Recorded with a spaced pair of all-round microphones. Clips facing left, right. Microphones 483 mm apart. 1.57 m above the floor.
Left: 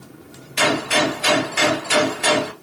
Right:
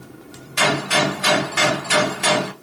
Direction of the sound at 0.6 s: 30° right (ahead or behind).